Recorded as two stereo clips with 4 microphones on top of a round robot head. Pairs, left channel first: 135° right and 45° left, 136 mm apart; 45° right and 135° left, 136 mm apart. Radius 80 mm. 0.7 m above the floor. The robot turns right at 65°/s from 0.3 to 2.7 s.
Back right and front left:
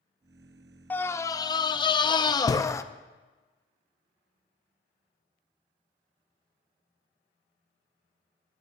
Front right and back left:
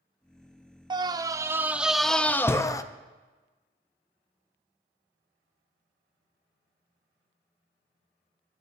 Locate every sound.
0.9 s a scream: 155° left, 0.6 m; by 2.8 s 90° right, 0.6 m